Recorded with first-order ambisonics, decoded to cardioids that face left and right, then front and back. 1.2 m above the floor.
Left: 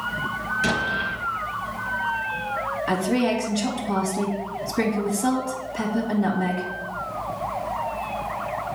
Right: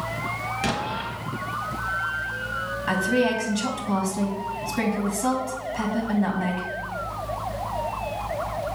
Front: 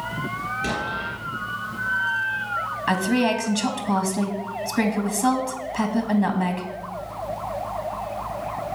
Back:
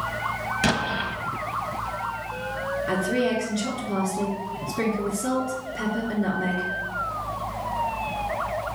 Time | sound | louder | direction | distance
0.6 | an explosion | left 5 dB, back 2 dB | 170° right | 1.0 m
2.9 | a woman speaking | right 2 dB, front 3 dB | 15° right | 1.4 m